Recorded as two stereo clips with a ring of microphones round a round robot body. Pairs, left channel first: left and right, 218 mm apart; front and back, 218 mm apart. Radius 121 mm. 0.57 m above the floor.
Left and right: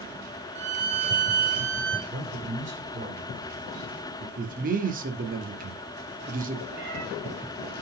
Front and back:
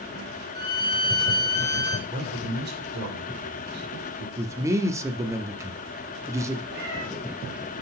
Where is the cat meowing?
140° right, 4 m.